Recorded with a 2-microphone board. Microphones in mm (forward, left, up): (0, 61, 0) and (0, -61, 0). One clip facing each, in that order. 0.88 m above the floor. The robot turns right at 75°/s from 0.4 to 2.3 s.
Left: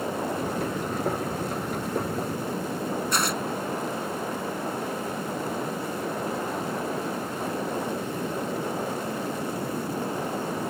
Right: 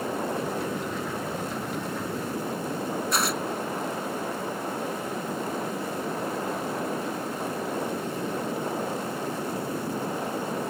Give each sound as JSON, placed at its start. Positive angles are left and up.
{"t": 3.1, "sound": "tearing paper", "side_deg": 0}